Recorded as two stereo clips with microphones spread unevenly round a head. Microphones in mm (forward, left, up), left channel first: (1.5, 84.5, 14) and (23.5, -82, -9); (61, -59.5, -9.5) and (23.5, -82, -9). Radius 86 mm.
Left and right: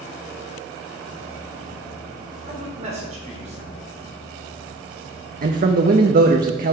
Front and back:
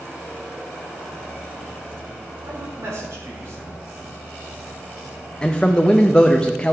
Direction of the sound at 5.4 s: 45° right.